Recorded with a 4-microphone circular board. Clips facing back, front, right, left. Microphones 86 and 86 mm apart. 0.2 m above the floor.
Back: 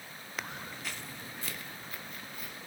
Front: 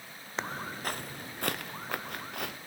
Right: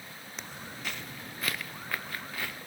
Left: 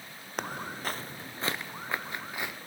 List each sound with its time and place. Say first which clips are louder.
0.4 s footsteps: front 6 dB, left 8 dB; 60° left, 0.5 m; by 2.6 s 20° left, 1.5 m